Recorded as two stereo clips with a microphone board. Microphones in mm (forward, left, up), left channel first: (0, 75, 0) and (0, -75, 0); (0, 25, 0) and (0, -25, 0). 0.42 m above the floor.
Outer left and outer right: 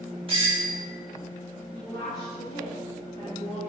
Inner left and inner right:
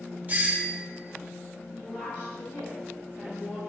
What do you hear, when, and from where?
0.3 s a doorbell: 35° right (ahead or behind), 1.7 m
1.7 s a woman speaking: 30° left (ahead or behind), 4 m